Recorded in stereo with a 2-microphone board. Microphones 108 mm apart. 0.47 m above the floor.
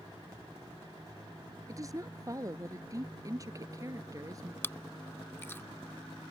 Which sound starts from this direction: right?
A woman speaking, at 1.7 s.